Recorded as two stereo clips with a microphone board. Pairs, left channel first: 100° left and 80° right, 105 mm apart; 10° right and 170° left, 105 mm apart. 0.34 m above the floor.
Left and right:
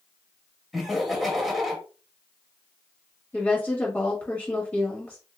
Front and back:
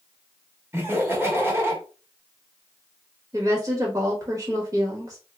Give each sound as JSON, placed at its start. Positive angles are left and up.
{"t": 0.7, "sound": "laughter", "azimuth_deg": -165, "distance_m": 1.1}
{"t": 3.3, "sound": "a woman speaking", "azimuth_deg": 160, "distance_m": 1.0}